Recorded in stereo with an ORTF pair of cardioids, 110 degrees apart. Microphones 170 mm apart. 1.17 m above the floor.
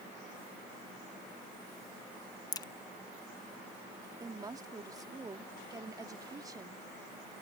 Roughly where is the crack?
Ahead left.